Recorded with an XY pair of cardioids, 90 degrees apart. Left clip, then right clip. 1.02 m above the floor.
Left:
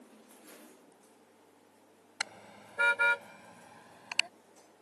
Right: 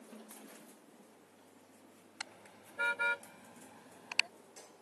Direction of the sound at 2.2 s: 65° left.